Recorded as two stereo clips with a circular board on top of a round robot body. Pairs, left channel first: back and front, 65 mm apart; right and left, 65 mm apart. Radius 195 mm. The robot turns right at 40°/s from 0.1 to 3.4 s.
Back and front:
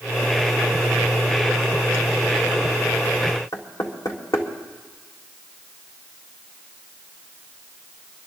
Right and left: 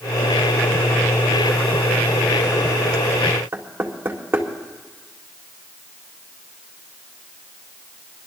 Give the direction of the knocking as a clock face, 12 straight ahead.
7 o'clock.